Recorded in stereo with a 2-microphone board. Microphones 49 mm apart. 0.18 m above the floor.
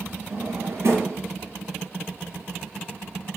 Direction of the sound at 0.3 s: 60° right (ahead or behind).